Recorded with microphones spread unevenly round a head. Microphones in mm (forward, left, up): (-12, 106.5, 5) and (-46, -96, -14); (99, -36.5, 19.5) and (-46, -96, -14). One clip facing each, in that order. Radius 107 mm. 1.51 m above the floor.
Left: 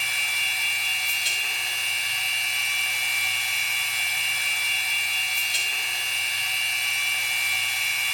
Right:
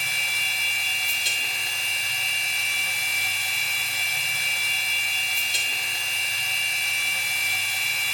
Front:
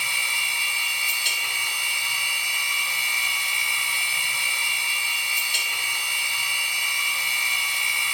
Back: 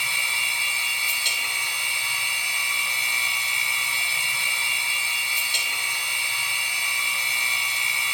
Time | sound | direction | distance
0.0 | a machine running | 90° right | 2.5 m